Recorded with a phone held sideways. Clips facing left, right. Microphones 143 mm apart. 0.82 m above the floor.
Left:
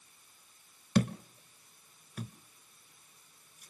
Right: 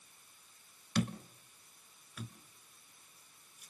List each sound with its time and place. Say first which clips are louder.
0.9 s a thud: left 5 dB; 50° left (ahead or behind), 1.2 m